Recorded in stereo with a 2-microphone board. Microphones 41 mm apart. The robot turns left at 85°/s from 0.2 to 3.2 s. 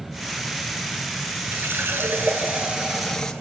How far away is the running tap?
About 2.5 m.